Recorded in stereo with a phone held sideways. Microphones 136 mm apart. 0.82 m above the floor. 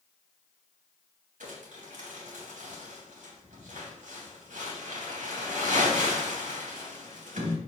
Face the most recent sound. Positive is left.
turn(degrees=-80)